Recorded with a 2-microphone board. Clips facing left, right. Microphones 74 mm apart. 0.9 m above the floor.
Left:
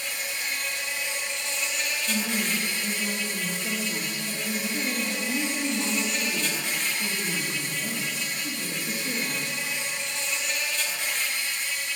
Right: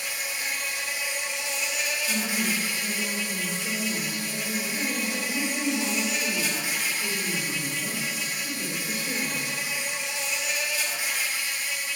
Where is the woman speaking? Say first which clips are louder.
Left 1 dB; 25° left (ahead or behind), 1.7 m.